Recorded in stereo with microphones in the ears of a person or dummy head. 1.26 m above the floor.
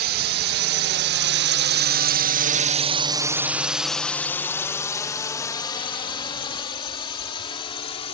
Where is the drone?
55° right (ahead or behind); by 8.1 s 30° left (ahead or behind).